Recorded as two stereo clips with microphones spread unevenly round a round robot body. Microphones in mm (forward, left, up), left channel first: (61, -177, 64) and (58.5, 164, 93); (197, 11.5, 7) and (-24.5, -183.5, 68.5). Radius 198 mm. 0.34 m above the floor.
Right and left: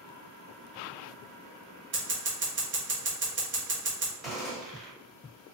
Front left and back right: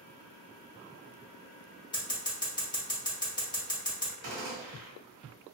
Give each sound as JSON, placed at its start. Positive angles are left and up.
{"t": 1.9, "sound": "scissors", "azimuth_deg": 70, "distance_m": 1.4}
{"t": 4.2, "sound": "a gunshot", "azimuth_deg": -175, "distance_m": 1.0}